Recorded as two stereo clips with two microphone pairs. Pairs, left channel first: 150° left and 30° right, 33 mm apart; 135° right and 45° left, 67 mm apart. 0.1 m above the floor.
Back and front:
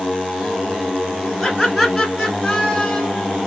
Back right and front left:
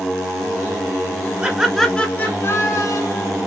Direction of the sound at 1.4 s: 60° left.